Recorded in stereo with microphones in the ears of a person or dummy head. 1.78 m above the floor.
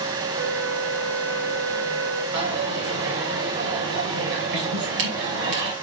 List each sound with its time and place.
0.3 s a flute: 75° right (ahead or behind), 4 m
2.3 s a dropped coin: 60° right (ahead or behind), 3 m